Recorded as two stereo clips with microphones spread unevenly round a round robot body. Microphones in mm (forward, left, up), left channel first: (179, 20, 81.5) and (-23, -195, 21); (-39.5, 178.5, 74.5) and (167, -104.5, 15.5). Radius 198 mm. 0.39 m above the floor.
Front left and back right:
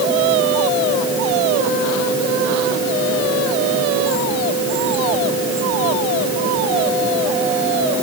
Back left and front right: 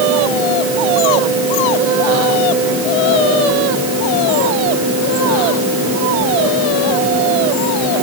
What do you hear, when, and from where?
Only background noise.